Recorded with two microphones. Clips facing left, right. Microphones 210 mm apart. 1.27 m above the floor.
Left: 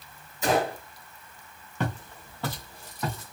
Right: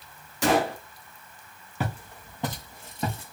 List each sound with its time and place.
0.4 s a gunshot: 70° right (ahead or behind), 1.5 m
1.8 s footsteps: 5° right (ahead or behind), 1.7 m; by 3.3 s 30° right (ahead or behind), 2 m